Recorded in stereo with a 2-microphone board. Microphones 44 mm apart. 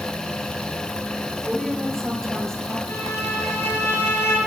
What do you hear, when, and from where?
1.4 s a woman speaking: centre (ahead or behind), 4.5 m; by 2.8 s 10° left (ahead or behind), 4.5 m
2.9 s a violin: 75° left (ahead or behind), 8.5 m